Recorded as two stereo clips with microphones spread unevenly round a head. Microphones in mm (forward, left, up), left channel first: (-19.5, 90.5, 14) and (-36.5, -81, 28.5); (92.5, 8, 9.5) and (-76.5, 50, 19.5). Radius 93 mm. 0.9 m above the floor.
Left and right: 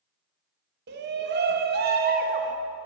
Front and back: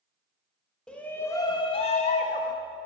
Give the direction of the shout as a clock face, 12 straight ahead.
3 o'clock.